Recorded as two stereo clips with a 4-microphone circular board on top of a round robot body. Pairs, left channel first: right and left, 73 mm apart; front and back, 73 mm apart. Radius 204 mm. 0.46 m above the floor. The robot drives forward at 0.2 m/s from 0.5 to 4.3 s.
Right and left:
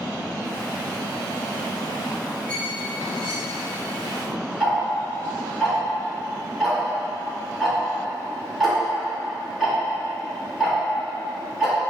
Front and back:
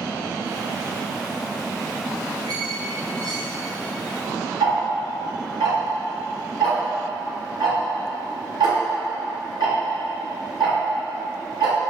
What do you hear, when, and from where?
2.5 s a squeak: 160° right, 2 m; by 3.6 s 165° right, 2.5 m
4.6 s ticking: straight behind, 2 m